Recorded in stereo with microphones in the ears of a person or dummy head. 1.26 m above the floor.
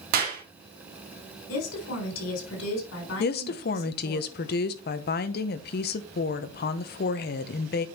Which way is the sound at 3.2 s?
55° left (ahead or behind).